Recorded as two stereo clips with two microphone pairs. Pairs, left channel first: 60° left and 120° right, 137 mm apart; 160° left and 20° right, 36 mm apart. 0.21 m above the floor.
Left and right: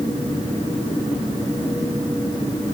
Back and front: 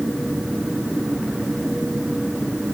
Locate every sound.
Only background noise.